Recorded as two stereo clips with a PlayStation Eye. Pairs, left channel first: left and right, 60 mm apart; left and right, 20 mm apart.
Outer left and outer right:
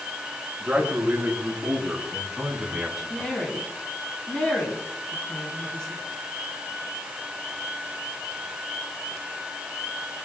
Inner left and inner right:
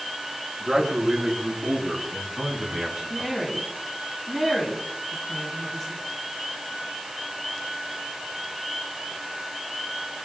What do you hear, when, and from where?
0.6 s a man speaking: 20° right (ahead or behind), 6.5 m; by 3.3 s 10° right (ahead or behind), 4 m
3.1 s a woman speaking: 15° left (ahead or behind), 3.5 m